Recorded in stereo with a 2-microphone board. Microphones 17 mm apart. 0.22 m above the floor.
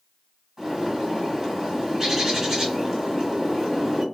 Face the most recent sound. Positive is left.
turn(degrees=-25)  # may be behind; listen again after turning